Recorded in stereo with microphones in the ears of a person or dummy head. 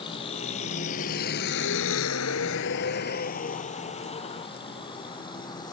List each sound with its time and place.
0.0 s a vehicle: 35° left (ahead or behind); by 5.7 s 20° left (ahead or behind)